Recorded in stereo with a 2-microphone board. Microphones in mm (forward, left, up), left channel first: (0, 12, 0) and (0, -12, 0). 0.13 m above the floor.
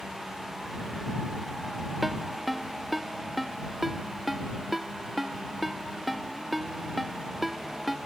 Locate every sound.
2.0 s a ringtone: 5° right (ahead or behind)